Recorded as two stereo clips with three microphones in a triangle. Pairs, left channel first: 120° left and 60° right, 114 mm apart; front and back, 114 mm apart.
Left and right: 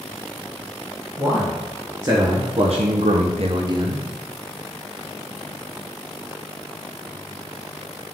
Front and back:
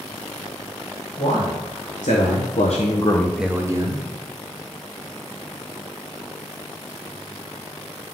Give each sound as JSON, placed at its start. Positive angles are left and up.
{"t": 1.2, "sound": "a man speaking", "azimuth_deg": 15, "distance_m": 2.5}